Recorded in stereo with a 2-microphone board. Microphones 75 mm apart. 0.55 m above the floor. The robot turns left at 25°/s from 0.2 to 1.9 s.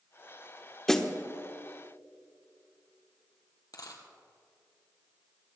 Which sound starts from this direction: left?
A dropped coin, at 3.7 s.